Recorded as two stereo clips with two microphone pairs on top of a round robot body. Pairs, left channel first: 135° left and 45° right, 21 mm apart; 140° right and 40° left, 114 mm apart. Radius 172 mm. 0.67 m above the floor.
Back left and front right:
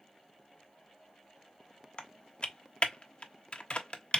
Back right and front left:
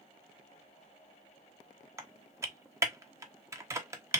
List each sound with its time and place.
2.0 s typing on a keyboard: 105° left, 0.9 m